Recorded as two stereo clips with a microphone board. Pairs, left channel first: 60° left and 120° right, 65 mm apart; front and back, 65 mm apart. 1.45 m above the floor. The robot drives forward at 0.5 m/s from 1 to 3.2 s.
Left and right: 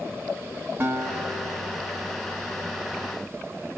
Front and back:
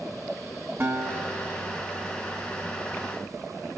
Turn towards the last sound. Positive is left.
turn(degrees=-170)